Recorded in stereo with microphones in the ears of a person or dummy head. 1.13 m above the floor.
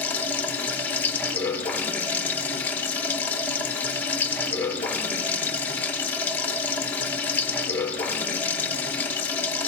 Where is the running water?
5° left (ahead or behind), 0.9 m.